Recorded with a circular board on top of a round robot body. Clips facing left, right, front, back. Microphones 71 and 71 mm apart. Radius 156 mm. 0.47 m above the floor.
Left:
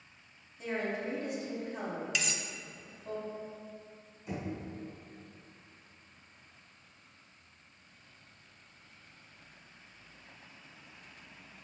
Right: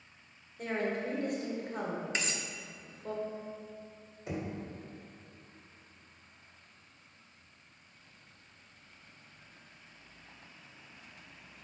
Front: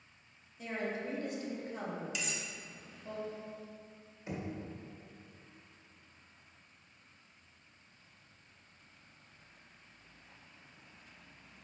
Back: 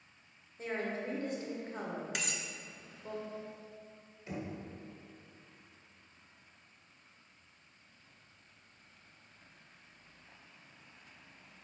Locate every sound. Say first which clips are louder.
0.6 s a woman speaking: right 1 dB, back 1 dB; 125° right, 1.8 m
2.1 s cutlery clinking: even, back 1 dB; 145° right, 0.5 m
4.3 s knocking: right 1 dB, even; 70° right, 1.9 m